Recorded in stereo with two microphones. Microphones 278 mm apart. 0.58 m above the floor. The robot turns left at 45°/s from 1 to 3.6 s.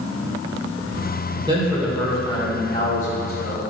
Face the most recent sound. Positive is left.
turn(degrees=105)